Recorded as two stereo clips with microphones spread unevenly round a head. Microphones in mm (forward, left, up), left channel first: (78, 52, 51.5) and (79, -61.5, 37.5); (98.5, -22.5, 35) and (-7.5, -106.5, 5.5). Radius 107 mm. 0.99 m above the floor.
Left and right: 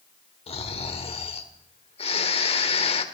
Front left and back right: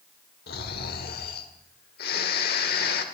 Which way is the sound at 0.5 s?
60° left.